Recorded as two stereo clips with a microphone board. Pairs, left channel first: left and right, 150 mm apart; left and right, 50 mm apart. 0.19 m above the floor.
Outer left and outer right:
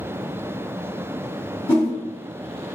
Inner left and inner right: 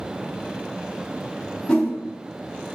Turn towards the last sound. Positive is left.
turn(degrees=25)  # may be behind; listen again after turning